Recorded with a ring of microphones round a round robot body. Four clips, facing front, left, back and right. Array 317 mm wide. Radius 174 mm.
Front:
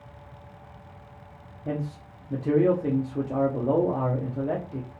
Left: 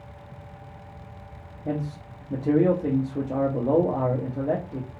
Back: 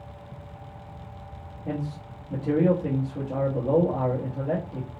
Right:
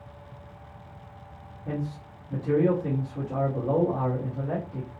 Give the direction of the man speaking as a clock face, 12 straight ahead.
10 o'clock.